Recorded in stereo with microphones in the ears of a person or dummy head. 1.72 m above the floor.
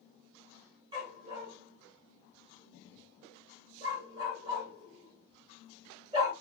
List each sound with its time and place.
0.9 s a dog barking: 25° right (ahead or behind), 2.0 m